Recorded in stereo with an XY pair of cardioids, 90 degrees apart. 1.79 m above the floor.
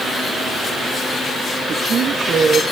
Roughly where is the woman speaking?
Ahead right.